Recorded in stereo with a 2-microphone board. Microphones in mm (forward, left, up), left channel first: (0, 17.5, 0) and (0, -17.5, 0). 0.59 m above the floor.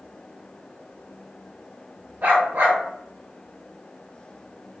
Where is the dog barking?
60° right (ahead or behind), 0.9 m.